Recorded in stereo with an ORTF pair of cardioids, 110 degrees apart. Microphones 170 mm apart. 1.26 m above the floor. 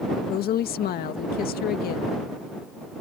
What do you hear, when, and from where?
0.3 s a woman speaking: 65° left